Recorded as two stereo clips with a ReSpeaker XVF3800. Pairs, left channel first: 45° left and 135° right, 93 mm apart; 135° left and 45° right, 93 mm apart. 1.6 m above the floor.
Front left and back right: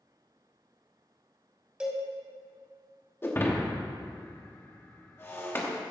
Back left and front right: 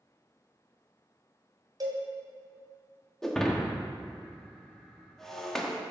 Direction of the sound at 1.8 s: 60° right.